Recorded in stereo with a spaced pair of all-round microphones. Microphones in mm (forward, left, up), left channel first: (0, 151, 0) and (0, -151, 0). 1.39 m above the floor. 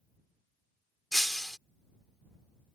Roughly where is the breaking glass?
Centre.